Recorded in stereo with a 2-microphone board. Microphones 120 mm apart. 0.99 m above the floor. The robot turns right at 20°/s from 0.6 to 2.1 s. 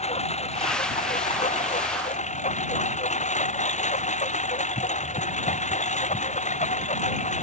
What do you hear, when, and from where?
0.0 s a lawn mower: 65° left; by 7.4 s 95° left